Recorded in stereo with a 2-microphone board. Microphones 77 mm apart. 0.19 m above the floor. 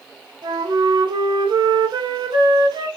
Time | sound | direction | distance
0.4 | a flute | 70° right (ahead or behind) | 0.6 m